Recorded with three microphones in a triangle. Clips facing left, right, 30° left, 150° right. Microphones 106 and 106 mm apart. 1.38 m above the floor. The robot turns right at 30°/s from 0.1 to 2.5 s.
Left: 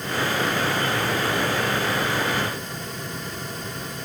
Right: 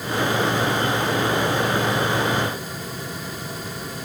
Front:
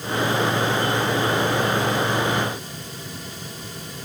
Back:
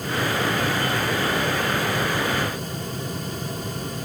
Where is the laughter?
I don't hear laughter.